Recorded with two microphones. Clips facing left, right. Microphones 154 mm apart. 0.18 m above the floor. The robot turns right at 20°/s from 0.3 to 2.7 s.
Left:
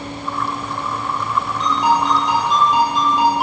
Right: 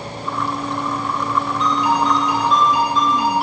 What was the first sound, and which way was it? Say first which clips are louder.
A ringtone: left 2 dB; 70° left (ahead or behind).